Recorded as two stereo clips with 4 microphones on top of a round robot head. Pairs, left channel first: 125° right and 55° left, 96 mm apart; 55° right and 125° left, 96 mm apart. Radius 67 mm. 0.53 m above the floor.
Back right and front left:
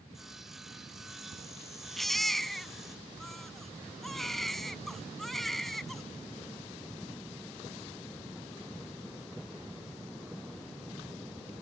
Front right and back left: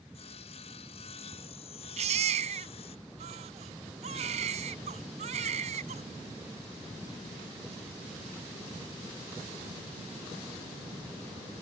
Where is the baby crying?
145° left.